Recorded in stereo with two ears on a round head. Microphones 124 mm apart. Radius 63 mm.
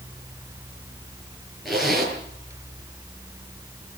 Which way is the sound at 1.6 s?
Centre (ahead or behind).